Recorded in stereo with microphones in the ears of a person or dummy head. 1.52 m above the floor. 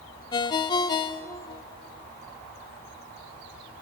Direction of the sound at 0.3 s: 25° left (ahead or behind).